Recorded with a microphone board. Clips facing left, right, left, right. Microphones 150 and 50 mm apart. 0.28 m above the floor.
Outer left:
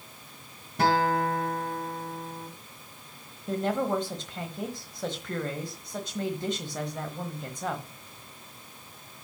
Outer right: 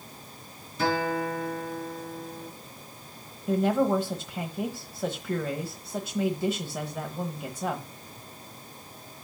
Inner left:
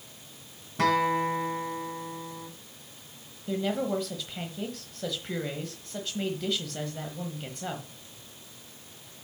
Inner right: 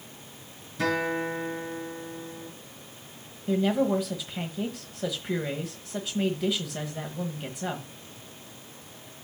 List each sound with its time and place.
0.8 s a guitar: 60° left (ahead or behind), 2.5 m
3.5 s a woman speaking: 10° right (ahead or behind), 1.1 m